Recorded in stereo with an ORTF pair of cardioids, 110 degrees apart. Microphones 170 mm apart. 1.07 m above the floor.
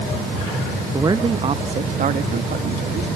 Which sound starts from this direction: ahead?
A man speaking, at 0.9 s.